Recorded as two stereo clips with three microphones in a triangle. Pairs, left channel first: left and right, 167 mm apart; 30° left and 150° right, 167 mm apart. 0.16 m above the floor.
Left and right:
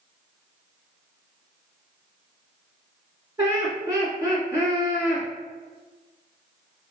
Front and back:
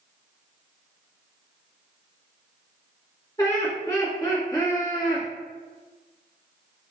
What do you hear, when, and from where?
3.4 s laughter: 30° right, 1.8 m